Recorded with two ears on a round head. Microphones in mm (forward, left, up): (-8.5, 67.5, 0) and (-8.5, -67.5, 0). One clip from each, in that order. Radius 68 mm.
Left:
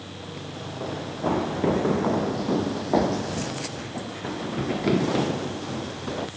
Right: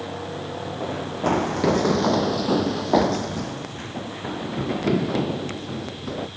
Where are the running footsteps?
55° right (ahead or behind); by 6.3 s 15° left (ahead or behind).